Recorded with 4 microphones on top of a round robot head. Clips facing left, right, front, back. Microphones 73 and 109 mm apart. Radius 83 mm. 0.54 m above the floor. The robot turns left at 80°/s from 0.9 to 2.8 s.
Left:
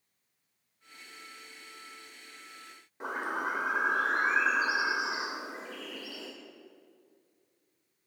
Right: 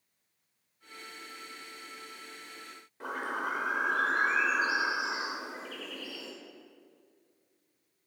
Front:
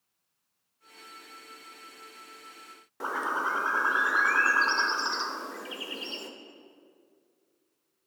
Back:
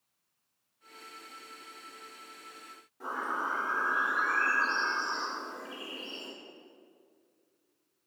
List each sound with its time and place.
3.0 s a bird: 15° left, 0.6 m